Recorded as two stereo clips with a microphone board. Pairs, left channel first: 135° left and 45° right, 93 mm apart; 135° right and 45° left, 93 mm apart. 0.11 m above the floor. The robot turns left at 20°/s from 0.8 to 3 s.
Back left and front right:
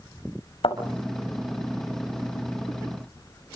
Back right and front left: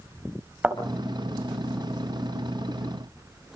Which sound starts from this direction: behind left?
A thud, at 0.6 s.